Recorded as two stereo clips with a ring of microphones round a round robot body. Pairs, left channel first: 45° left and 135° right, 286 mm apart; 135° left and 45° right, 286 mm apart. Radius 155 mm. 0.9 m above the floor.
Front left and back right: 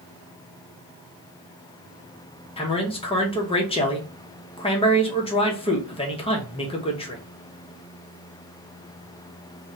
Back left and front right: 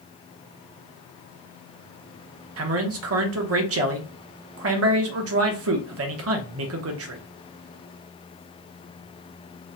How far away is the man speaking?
About 0.7 m.